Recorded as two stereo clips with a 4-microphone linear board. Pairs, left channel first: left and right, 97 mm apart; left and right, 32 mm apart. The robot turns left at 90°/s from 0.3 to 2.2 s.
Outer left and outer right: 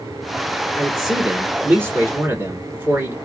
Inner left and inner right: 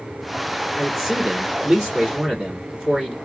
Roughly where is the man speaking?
Centre.